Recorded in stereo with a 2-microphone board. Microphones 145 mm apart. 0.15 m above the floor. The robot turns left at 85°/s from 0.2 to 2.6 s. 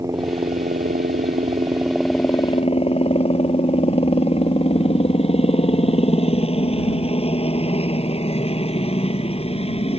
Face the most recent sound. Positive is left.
turn(degrees=135)